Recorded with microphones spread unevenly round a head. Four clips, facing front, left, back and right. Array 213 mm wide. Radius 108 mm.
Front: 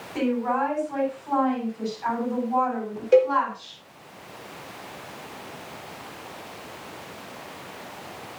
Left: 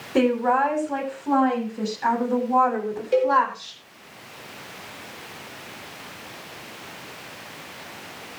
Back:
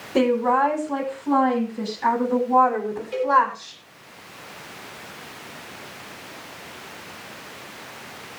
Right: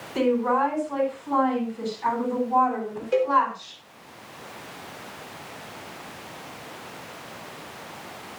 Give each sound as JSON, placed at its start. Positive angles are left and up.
{"t": 0.1, "sound": "a woman speaking", "azimuth_deg": 135, "distance_m": 7.5}
{"t": 3.1, "sound": "a cowbell", "azimuth_deg": 15, "distance_m": 4.5}